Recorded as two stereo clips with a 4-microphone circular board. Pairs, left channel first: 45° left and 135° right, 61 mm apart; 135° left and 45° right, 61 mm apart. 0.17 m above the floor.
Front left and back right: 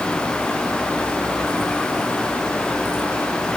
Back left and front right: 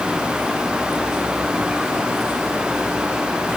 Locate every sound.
Only background noise.